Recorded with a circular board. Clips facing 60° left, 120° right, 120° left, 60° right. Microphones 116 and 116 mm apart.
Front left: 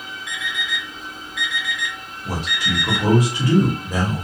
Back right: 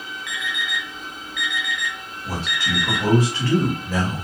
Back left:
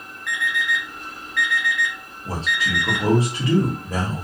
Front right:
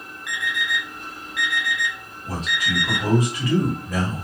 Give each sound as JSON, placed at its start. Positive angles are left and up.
{"t": 0.3, "sound": "an alarm clock", "azimuth_deg": 15, "distance_m": 1.3}
{"t": 2.2, "sound": "a man speaking", "azimuth_deg": 115, "distance_m": 1.0}